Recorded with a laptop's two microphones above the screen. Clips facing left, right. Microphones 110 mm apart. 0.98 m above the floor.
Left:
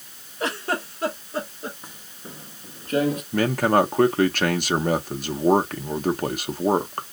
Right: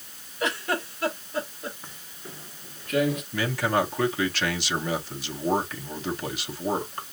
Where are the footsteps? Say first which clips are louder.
Left 2 dB; 15° left (ahead or behind), 1.0 m; by 3.2 s 40° left (ahead or behind), 1.2 m.